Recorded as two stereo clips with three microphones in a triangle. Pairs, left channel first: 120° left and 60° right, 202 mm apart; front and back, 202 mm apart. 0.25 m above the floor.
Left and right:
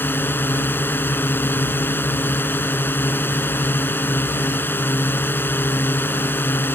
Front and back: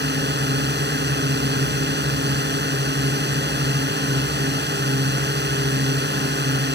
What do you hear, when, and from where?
0.0 s a drone: 160° right